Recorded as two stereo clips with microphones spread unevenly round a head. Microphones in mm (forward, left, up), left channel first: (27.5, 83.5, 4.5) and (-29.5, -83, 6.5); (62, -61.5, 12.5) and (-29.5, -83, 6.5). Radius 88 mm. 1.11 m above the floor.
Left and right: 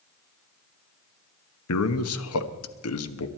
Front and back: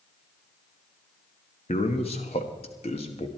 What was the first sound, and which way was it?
A man speaking, 70° left.